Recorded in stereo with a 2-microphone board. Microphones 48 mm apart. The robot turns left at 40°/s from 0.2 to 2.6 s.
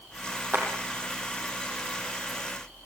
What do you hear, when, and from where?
0.5 s a clap: 50° right (ahead or behind), 5.5 m; by 0.7 s 60° right (ahead or behind), 5.5 m